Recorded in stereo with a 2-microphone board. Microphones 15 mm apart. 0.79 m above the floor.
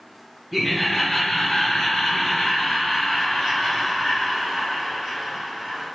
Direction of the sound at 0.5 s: 5° right (ahead or behind).